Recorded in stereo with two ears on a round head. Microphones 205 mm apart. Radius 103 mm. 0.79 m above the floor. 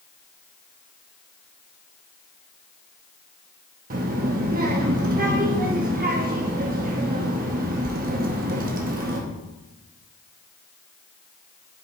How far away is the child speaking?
About 0.8 m.